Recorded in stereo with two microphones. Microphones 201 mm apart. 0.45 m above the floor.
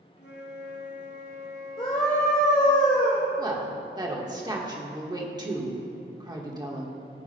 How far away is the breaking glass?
No breaking glass in this recording.